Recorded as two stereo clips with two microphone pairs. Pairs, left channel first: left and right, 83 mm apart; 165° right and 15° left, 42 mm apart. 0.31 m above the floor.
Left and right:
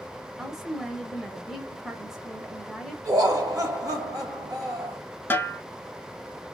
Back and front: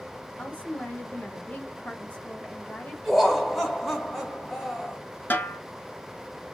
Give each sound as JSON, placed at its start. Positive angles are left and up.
{"t": 0.4, "sound": "a woman speaking", "azimuth_deg": -175, "distance_m": 1.0}
{"t": 3.0, "sound": "laughter", "azimuth_deg": -75, "distance_m": 1.5}
{"t": 5.3, "sound": "a snare drum", "azimuth_deg": 155, "distance_m": 0.6}